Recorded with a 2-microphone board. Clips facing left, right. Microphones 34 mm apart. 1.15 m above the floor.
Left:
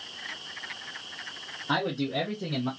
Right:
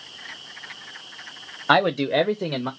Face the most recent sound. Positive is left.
turn(degrees=-40)  # may be behind; listen again after turning